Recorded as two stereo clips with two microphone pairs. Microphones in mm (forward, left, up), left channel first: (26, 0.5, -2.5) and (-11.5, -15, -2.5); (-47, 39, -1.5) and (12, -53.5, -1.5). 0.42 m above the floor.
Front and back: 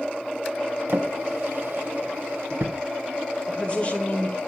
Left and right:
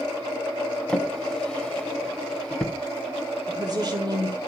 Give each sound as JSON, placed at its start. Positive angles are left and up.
{"t": 0.9, "sound": "a drawer", "azimuth_deg": -155, "distance_m": 1.2}
{"t": 3.5, "sound": "a woman speaking", "azimuth_deg": -30, "distance_m": 1.3}